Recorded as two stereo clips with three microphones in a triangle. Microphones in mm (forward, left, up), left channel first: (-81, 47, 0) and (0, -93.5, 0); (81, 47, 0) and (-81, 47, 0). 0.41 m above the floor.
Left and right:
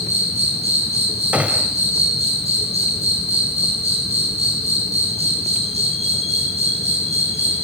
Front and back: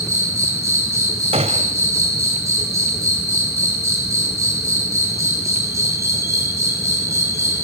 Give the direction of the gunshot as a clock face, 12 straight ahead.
5 o'clock.